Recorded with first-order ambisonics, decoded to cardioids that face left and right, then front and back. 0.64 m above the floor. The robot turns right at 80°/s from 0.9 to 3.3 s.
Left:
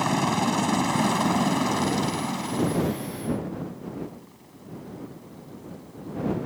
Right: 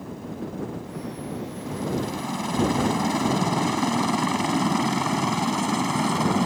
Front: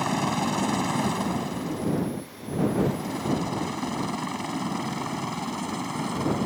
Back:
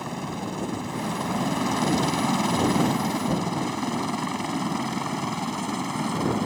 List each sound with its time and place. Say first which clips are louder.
0.0 s a helicopter: left 12 dB, front 6 dB; 65° left; by 6.5 s 100° right